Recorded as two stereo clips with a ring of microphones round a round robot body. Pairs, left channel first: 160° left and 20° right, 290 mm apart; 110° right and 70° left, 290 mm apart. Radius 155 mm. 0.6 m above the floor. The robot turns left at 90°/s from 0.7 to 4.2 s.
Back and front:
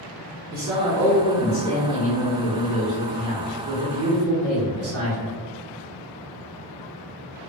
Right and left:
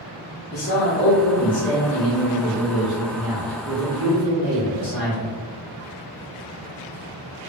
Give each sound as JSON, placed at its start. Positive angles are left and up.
{"t": 0.5, "sound": "a man speaking", "azimuth_deg": -75, "distance_m": 1.1}